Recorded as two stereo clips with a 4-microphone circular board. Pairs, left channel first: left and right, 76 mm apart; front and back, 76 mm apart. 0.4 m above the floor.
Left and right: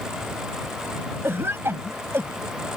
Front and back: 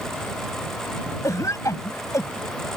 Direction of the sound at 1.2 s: 35° right.